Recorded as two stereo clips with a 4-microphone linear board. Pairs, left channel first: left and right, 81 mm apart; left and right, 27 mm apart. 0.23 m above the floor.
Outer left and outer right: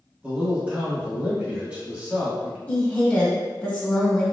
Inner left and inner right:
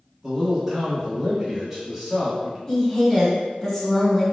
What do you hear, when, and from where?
0.2 s a man speaking: 15° right (ahead or behind), 1.2 m
2.7 s a woman speaking: 20° left (ahead or behind), 1.0 m